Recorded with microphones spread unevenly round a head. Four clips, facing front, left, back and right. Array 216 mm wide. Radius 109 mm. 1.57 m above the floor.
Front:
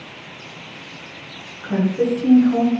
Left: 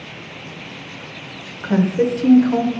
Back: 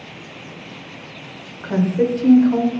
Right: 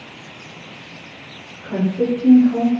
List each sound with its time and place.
1.6 s a woman speaking: 85° left, 0.6 m